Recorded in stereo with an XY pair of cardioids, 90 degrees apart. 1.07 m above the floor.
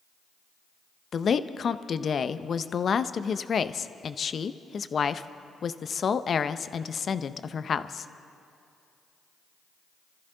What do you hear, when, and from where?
1.1 s a woman speaking: 50° left, 0.6 m